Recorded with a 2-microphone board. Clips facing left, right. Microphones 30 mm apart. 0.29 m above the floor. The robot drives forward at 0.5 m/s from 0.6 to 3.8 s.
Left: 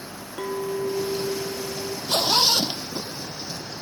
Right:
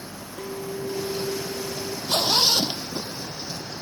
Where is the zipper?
30° left (ahead or behind); by 3.6 s 25° left (ahead or behind).